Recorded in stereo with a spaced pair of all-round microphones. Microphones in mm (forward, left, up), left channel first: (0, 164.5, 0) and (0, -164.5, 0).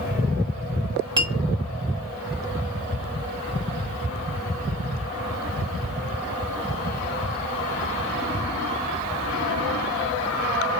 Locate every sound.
1.2 s a clink: 15° right (ahead or behind), 1.0 m